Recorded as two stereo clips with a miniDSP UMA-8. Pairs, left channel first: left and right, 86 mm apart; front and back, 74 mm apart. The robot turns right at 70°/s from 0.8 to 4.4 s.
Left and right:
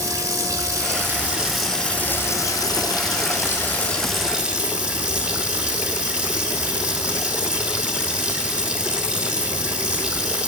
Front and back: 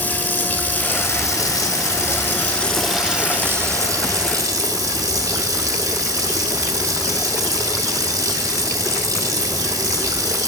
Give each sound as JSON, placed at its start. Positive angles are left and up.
{"t": 0.0, "sound": "running water", "azimuth_deg": -55, "distance_m": 0.8}